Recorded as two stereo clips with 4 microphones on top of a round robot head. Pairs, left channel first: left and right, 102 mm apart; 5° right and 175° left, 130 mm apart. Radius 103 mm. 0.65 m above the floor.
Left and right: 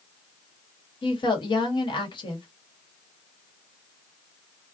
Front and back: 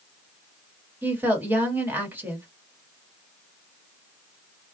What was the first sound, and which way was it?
A woman speaking, 105° left.